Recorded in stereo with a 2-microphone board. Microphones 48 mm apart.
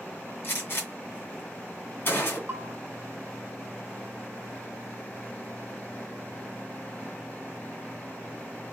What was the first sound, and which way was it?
A gunshot, 50° left (ahead or behind).